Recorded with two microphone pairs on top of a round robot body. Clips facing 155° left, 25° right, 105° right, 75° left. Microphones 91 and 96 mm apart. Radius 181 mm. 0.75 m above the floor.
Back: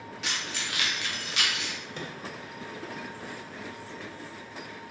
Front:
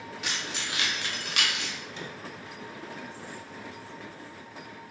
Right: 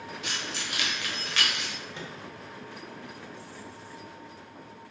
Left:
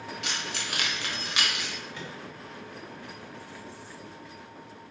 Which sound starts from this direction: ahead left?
Keys jangling, at 0.2 s.